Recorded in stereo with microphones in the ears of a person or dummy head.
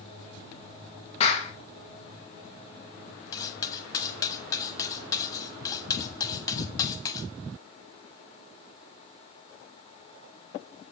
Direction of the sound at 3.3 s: 20° left (ahead or behind).